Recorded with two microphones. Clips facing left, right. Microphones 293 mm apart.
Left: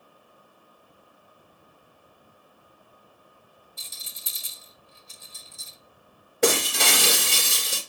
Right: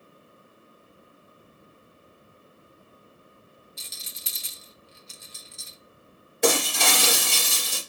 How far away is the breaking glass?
About 3 m.